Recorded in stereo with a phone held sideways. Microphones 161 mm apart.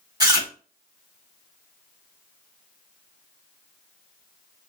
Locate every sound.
0.2 s chewing: 25° right (ahead or behind), 1.0 m